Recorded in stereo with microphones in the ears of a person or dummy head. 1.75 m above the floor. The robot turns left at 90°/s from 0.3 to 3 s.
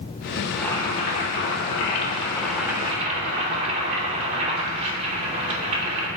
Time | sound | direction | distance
0.5 | boiling | 170° right | 3 m